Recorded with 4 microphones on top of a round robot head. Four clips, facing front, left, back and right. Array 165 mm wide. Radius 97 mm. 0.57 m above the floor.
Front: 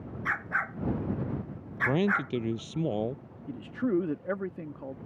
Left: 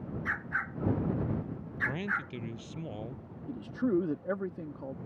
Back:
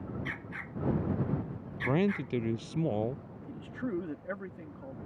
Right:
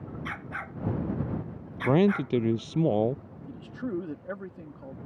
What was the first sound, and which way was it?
A dog barking, 35° right.